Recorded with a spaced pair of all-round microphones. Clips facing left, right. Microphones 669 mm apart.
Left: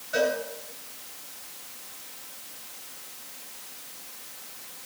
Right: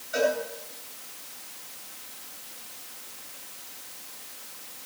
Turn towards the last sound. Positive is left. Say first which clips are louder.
# even
turn(degrees=65)  # may be behind; listen again after turning